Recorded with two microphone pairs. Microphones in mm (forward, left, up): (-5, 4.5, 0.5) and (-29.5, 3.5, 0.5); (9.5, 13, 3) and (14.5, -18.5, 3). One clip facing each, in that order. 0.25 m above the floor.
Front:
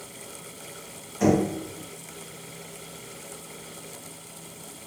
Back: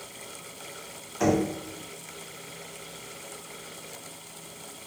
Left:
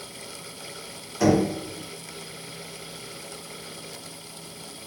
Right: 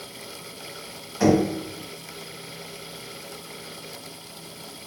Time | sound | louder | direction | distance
1.2 | knocking | front 2 dB, right 1 dB | 145° right | 1.5 m